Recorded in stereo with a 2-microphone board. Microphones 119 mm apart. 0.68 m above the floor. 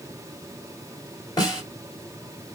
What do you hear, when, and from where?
1.4 s a snare drum: 40° left (ahead or behind), 3 m